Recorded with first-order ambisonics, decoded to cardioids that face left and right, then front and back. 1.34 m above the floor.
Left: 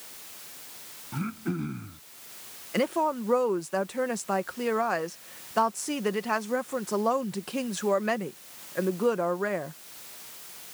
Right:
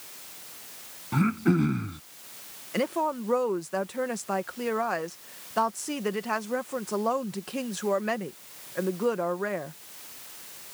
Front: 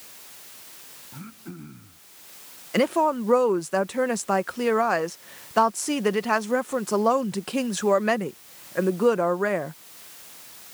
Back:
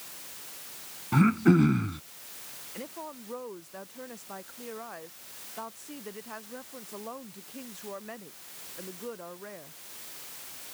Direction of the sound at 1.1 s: 150° right.